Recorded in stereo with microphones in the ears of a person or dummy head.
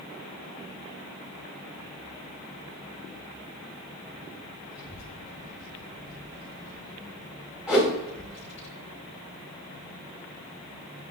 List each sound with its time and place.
4.7 s a child speaking: 5° right (ahead or behind), 2.5 m; by 8.7 s 40° right (ahead or behind), 7 m
7.7 s a whoosh: 5° right (ahead or behind), 4.5 m